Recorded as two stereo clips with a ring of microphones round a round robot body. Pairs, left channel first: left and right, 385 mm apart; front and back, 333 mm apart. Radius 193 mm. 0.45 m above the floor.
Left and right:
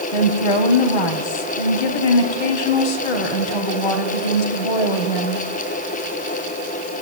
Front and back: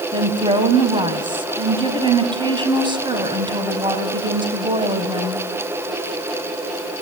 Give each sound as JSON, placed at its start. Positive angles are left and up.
{"t": 0.1, "sound": "a woman speaking", "azimuth_deg": 105, "distance_m": 3.0}